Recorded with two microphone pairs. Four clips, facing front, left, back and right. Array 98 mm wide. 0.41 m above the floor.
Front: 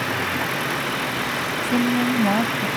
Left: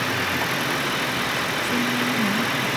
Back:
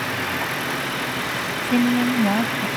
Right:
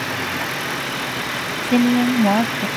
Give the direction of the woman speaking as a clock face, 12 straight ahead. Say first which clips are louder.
Right 11 dB, back 2 dB; 3 o'clock.